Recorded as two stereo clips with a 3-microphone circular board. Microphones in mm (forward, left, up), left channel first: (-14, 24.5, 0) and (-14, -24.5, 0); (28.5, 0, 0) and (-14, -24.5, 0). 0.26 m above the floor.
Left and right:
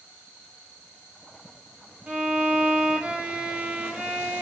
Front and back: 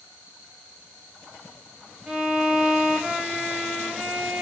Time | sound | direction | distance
2.1 | a violin | 90° right | 0.8 m